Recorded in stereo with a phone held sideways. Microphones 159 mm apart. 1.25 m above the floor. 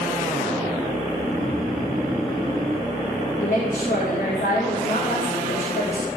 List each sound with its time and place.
1.1 s snoring: 5° left (ahead or behind), 1.5 m
3.4 s a woman speaking: 80° left, 3 m